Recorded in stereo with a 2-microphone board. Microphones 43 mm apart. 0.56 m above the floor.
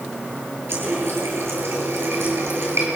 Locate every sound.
0.7 s a running tap: 65° right (ahead or behind), 8 m